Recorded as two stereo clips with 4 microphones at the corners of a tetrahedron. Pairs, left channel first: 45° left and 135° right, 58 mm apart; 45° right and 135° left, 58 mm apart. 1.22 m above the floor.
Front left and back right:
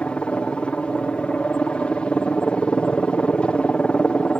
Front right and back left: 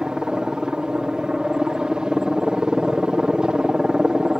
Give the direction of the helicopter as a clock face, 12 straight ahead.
9 o'clock.